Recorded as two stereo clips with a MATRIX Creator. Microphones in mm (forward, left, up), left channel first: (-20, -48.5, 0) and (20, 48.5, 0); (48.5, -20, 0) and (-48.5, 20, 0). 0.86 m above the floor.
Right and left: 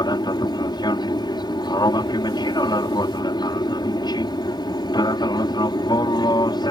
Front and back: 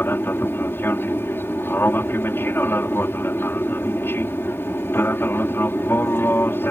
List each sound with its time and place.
0.0 s an aircraft: 85° right